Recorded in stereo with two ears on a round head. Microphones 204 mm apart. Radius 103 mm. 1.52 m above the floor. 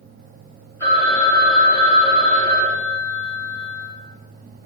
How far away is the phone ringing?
About 2.5 m.